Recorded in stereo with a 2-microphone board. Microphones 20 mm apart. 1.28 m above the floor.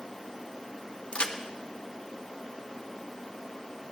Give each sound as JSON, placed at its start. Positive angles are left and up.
{"t": 1.1, "sound": "a crack", "side_deg": 65, "distance_m": 0.9}